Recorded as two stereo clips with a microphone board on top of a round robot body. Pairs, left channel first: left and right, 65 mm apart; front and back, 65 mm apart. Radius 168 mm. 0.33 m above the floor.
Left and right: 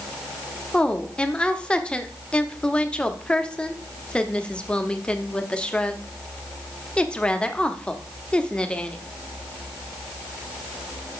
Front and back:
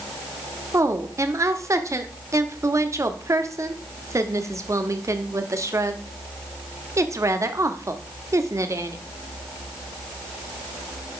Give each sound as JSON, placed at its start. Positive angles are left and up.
{"t": 0.7, "sound": "a woman speaking", "azimuth_deg": 160, "distance_m": 1.2}